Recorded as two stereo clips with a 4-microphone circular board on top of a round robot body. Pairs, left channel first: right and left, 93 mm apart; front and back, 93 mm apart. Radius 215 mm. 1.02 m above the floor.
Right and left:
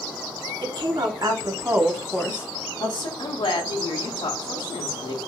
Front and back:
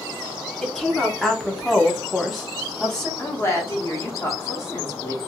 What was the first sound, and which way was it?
A woman speaking, 85° left.